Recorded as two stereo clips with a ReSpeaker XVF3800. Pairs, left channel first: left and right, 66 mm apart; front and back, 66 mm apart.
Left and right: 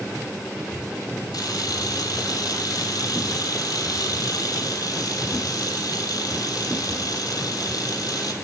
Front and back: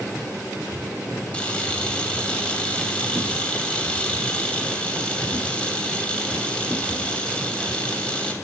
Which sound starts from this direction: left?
A camera shutter, at 1.3 s.